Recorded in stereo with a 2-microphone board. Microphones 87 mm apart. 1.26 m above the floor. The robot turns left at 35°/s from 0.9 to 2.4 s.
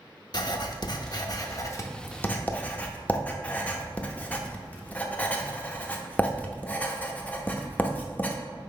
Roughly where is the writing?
Left.